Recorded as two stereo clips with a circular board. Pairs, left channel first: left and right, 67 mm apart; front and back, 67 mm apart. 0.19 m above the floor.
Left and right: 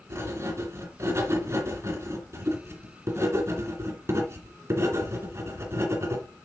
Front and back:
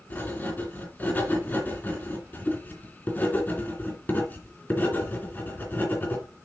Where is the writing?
55° right, 2.5 m.